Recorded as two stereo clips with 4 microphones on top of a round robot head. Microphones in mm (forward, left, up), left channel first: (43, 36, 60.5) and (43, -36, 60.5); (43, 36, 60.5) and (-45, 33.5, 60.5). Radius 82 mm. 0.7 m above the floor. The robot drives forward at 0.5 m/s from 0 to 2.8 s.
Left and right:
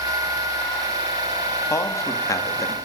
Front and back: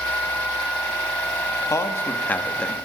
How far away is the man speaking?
About 1.3 m.